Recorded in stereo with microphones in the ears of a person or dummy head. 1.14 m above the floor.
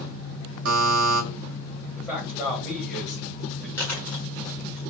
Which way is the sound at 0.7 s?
60° right (ahead or behind).